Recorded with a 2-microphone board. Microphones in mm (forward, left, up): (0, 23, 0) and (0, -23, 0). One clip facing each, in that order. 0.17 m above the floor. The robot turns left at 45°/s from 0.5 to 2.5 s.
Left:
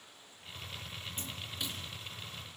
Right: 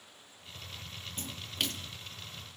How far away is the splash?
About 1.9 m.